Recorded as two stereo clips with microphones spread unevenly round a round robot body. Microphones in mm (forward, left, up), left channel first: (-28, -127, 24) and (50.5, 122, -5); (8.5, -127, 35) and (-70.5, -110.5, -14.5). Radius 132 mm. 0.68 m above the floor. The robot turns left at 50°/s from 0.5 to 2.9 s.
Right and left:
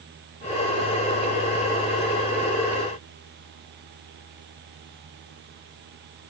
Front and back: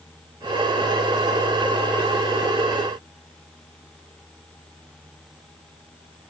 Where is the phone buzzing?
I don't hear a phone buzzing.